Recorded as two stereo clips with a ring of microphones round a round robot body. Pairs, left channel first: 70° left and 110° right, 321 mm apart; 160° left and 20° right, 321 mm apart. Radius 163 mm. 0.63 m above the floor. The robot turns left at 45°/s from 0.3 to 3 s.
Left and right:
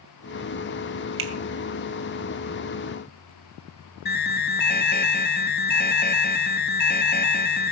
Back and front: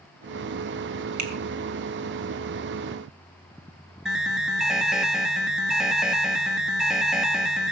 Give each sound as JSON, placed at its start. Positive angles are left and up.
{"t": 1.2, "sound": "a finger snap", "azimuth_deg": -60, "distance_m": 2.5}
{"t": 4.0, "sound": "an alarm", "azimuth_deg": 65, "distance_m": 1.3}